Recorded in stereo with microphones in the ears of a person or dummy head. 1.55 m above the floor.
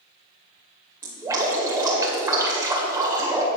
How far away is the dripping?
About 2 m.